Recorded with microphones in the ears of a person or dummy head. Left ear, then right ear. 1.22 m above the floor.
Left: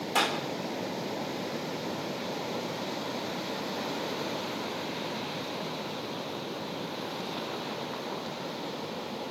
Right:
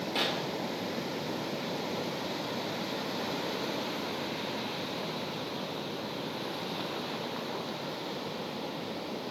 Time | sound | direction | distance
0.1 | a clap | 45° left (ahead or behind) | 3 m